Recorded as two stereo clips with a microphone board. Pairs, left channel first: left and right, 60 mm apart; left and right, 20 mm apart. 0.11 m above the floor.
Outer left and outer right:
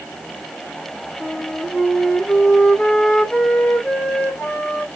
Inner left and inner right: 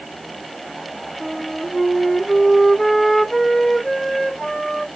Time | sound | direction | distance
1.2 | a flute | 15° left (ahead or behind) | 1.0 m